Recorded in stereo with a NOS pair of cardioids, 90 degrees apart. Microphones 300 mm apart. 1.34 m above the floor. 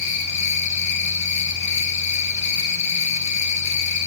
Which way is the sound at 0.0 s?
65° left.